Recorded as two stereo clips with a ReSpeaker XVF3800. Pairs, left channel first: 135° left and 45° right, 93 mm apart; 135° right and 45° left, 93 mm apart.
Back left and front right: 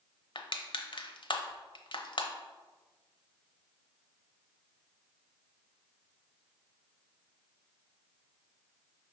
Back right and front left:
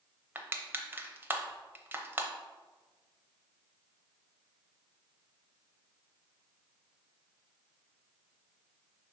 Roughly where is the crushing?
Left.